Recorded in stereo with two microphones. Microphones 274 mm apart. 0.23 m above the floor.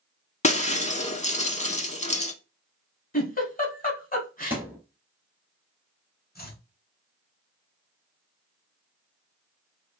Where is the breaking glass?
25° left (ahead or behind), 0.5 m.